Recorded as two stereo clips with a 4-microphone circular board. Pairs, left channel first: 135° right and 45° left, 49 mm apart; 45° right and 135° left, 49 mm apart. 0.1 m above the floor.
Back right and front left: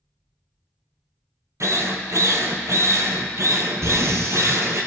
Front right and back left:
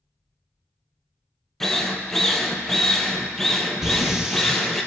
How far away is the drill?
About 1.2 m.